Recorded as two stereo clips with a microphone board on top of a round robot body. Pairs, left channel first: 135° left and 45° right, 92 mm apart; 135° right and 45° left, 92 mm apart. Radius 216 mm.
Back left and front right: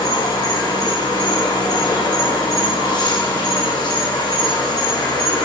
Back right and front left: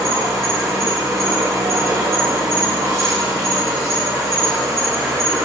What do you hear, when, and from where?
0.0 s an insect: 100° left, 1.2 m